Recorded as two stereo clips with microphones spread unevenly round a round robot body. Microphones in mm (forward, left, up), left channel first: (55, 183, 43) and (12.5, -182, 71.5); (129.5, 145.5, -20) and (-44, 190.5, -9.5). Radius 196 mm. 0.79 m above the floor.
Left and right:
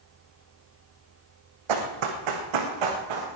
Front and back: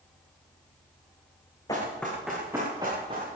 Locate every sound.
1.7 s running footsteps: 95° right, 2.5 m; by 3.4 s 120° right, 4 m